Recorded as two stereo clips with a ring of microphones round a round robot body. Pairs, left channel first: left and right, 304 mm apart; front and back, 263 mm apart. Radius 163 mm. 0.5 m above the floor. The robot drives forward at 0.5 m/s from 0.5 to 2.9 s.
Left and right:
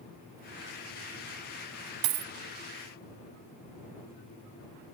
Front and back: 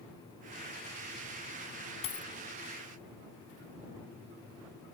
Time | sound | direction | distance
2.0 | a dropped coin | 70° right | ?